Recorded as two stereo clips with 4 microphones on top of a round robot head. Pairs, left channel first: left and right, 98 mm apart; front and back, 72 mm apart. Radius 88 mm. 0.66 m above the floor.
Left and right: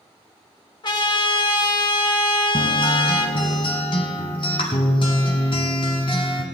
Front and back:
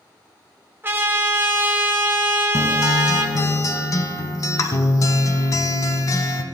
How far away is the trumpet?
About 2.5 m.